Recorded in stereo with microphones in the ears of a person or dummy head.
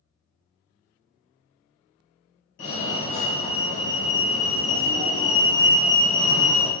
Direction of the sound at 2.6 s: 55° left (ahead or behind).